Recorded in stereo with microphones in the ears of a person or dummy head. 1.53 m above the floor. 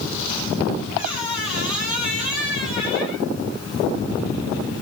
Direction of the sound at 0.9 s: 25° left (ahead or behind).